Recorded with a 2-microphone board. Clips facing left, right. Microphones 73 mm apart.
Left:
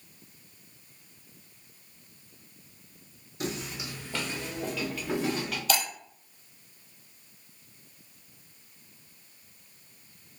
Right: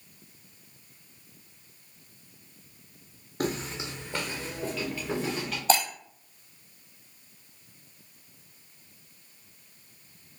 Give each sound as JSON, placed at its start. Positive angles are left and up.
{"t": 3.4, "sound": "footsteps", "side_deg": -50, "distance_m": 0.8}
{"t": 5.7, "sound": "breaking glass", "side_deg": -30, "distance_m": 1.2}